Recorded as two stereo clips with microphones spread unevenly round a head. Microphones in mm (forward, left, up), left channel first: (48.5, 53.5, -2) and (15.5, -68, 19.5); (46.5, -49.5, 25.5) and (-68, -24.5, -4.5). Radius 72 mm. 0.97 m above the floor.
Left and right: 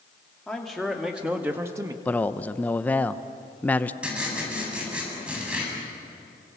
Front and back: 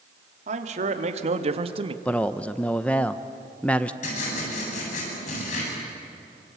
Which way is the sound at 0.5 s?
160° left.